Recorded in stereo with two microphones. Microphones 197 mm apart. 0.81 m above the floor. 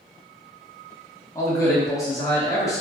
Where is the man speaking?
15° left (ahead or behind), 0.9 m.